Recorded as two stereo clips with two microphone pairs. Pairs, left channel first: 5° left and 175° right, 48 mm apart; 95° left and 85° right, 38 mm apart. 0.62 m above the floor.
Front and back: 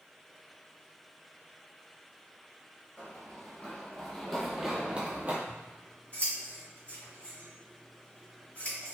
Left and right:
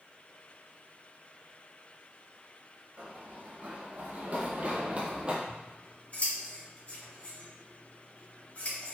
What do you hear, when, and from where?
3.0 s running footsteps: 45° right, 1.3 m; by 5.4 s 140° right, 0.8 m
5.5 s scissors: 55° left, 1.7 m